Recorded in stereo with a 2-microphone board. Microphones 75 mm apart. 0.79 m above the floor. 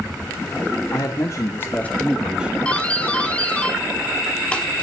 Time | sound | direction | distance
0.9 | a man speaking | 55° left (ahead or behind) | 2.5 m
2.6 | a doorbell | 15° left (ahead or behind) | 2.5 m